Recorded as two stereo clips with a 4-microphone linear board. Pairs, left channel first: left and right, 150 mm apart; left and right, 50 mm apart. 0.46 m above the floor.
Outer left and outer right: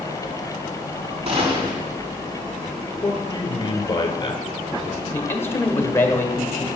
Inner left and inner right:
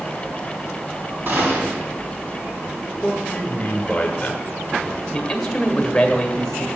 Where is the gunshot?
45° right (ahead or behind), 4.5 m.